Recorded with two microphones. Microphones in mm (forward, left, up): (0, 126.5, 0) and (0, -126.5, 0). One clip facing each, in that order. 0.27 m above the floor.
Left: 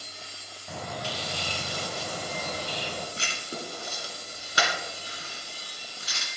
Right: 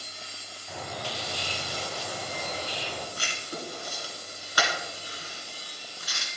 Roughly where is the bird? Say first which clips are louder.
Left 1 dB; left.